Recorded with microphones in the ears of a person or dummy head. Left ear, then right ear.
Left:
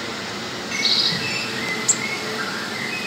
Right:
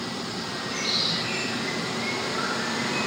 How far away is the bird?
About 1.7 m.